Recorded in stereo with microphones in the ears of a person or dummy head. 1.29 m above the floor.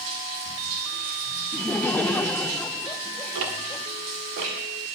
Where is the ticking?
60° right (ahead or behind), 1.5 m.